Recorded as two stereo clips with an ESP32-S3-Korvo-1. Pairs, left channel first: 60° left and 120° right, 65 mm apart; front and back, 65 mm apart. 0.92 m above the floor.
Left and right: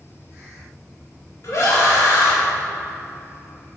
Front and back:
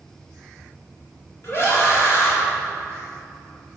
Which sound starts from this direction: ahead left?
A scream, at 1.4 s.